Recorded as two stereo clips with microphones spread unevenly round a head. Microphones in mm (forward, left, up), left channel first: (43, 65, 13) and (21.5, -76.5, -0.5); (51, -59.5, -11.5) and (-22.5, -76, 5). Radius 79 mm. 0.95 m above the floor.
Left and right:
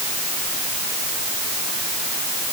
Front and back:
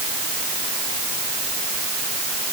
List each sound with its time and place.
Only background noise.